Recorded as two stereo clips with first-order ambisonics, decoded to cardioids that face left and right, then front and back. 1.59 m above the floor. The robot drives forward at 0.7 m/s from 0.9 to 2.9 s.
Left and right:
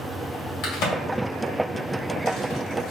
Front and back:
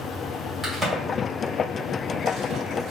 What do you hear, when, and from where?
0.6 s a crack: 100° left, 2 m; by 2.9 s 135° left, 2.5 m